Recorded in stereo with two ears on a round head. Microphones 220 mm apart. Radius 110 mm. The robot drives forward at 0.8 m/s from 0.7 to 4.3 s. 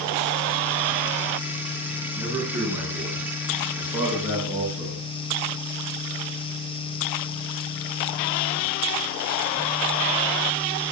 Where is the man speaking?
10° right (ahead or behind), 9 m.